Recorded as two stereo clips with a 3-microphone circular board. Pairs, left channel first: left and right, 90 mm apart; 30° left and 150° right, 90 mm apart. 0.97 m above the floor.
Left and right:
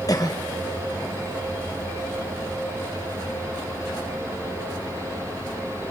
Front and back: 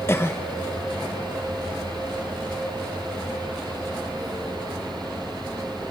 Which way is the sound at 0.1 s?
80° left.